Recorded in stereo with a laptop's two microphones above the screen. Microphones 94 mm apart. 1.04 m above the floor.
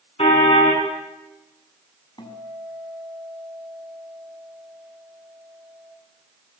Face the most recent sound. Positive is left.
turn(degrees=50)  # may be behind; listen again after turning